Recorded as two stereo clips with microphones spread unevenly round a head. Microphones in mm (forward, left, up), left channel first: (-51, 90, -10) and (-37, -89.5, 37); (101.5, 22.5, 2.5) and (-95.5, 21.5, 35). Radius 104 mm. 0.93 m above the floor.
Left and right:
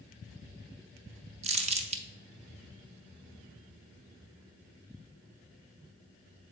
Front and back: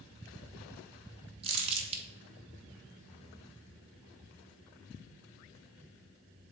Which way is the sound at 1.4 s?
125° right.